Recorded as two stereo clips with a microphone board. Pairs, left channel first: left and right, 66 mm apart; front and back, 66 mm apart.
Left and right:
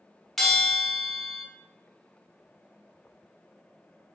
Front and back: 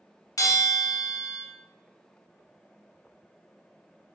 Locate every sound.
0.4 s a bell: 5° left, 0.7 m